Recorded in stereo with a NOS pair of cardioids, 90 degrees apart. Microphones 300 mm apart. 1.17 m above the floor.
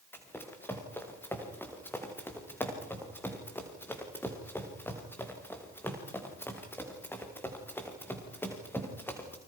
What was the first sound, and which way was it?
Running footsteps, 5° left.